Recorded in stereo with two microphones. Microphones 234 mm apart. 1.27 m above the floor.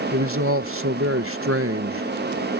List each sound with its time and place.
0.1 s a man speaking: 65° right (ahead or behind)